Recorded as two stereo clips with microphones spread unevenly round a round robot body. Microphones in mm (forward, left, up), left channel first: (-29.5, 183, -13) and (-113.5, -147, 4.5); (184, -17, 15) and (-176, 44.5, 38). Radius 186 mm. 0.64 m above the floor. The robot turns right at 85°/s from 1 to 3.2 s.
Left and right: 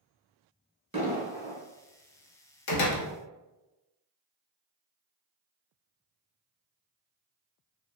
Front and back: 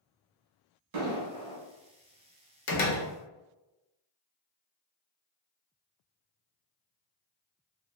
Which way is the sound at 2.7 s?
40° left.